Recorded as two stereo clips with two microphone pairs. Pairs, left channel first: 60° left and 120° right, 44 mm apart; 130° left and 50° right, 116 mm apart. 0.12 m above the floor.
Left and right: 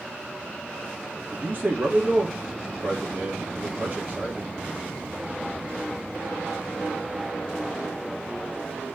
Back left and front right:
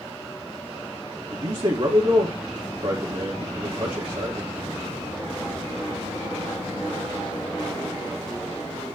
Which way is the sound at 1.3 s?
75° right.